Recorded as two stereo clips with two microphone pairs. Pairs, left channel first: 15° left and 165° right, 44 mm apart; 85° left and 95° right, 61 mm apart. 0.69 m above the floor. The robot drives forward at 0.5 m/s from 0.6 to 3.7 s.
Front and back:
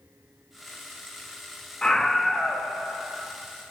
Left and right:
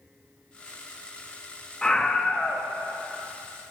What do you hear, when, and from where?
1.8 s a scream: 45° left, 0.9 m; by 2.7 s 140° left, 0.9 m